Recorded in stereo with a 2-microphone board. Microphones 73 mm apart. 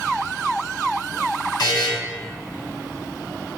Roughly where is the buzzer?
Left.